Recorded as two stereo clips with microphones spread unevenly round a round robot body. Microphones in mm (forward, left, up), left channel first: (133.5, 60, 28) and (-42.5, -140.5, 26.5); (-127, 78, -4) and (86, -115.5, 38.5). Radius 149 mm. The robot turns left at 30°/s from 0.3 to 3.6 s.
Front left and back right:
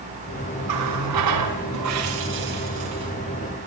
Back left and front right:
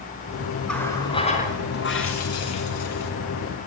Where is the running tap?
135° right, 6 m; by 3.1 s 150° left, 6 m.